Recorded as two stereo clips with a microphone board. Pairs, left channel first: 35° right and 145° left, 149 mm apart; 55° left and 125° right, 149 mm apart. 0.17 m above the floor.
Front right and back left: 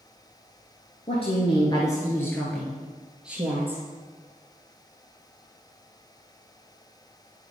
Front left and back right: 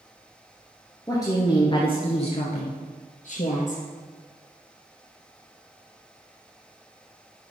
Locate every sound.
1.1 s a woman speaking: 5° right, 1.7 m; by 3.8 s 70° left, 2.5 m